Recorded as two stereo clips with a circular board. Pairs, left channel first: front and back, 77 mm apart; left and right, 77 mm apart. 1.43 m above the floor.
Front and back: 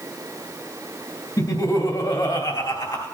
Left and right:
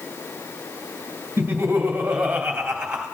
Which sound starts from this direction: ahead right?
Laughter, at 1.4 s.